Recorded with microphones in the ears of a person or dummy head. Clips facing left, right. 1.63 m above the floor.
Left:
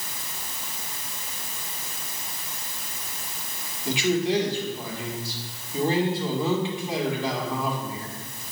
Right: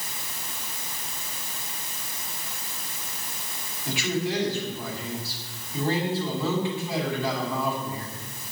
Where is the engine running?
I don't hear an engine running.